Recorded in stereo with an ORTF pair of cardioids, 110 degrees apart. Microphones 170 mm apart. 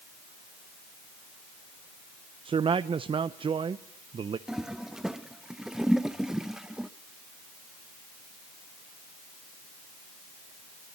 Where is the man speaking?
30° right, 0.8 m.